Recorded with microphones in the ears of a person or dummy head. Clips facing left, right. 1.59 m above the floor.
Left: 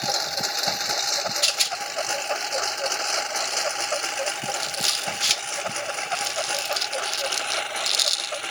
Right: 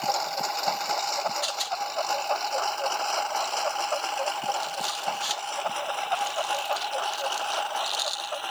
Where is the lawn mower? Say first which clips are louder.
Right 1 dB; 25° left (ahead or behind); by 8.5 s 30° left (ahead or behind).